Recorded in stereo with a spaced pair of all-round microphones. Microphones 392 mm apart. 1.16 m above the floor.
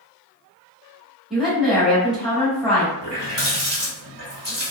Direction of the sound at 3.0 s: 50° right (ahead or behind).